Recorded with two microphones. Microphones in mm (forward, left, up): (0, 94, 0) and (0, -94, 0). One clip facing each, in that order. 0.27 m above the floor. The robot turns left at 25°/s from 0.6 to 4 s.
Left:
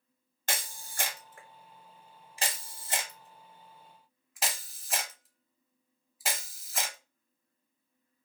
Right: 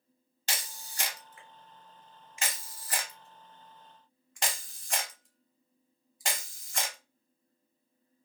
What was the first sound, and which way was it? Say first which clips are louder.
A camera shutter: left 3 dB; 50° left (ahead or behind).